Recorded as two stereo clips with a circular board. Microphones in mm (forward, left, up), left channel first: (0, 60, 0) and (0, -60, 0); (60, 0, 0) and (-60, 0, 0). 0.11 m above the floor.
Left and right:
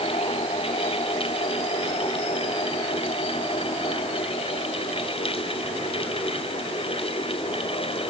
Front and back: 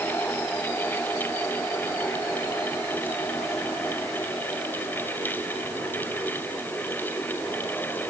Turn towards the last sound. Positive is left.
No sound to turn to.